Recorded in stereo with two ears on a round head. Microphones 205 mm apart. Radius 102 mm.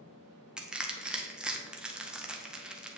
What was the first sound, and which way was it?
Crushing, 5° right (ahead or behind).